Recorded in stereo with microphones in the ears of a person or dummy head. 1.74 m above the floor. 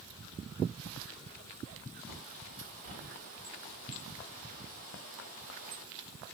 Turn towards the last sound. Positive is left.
turn(degrees=-45)  # may be behind; listen again after turning